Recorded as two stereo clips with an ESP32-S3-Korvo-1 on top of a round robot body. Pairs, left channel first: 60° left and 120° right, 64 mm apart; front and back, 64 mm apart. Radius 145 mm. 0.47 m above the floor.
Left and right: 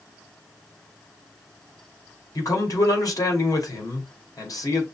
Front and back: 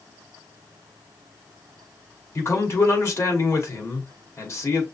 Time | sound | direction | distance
2.4 | a man speaking | 40° left | 2 m